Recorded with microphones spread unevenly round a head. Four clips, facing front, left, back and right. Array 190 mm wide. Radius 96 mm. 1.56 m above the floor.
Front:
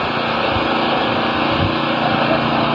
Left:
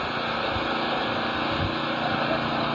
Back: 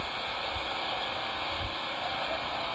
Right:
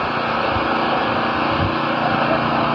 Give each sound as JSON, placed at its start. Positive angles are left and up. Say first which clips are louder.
{"t": 0.0, "sound": "an engine running", "louder": "right 8 dB, front 18 dB", "azimuth_deg": -25}